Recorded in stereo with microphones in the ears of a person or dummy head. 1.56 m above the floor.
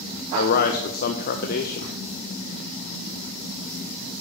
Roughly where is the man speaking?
Left.